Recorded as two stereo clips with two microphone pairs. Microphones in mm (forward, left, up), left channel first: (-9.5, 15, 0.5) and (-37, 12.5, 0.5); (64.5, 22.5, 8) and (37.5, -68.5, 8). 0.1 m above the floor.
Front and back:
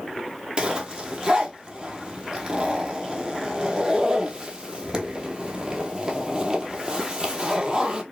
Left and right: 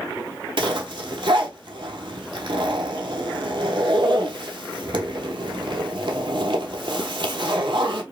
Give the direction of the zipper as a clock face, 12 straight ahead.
4 o'clock.